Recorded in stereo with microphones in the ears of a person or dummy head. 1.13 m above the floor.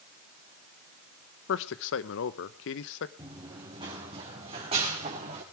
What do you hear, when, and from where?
1.5 s a man speaking: 65° left (ahead or behind), 0.9 m
3.2 s running footsteps: 20° right (ahead or behind), 4.5 m; by 5.4 s 35° right (ahead or behind), 5 m